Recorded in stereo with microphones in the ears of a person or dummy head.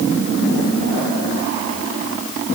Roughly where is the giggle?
No giggle in this recording.